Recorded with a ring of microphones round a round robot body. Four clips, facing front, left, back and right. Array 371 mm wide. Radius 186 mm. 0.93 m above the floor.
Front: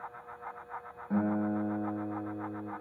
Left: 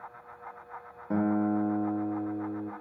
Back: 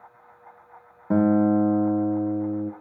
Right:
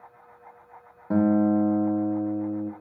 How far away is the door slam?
I don't hear a door slam.